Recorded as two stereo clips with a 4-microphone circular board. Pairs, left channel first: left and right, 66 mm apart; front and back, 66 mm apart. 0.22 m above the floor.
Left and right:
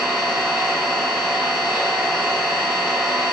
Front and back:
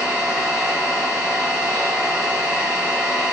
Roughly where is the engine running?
Ahead.